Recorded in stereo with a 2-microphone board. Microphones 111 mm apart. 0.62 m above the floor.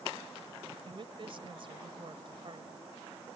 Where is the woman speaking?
50° right (ahead or behind).